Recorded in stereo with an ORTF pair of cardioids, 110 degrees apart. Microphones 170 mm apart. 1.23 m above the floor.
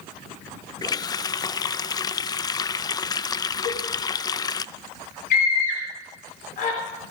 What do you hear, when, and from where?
0.8 s a running tap: 25° left, 0.5 m
3.6 s a cowbell: 45° left, 6 m
5.3 s a scream: 55° left, 3.5 m